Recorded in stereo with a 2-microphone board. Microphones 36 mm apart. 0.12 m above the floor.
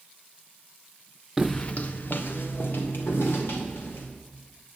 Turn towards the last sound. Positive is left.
turn(degrees=85)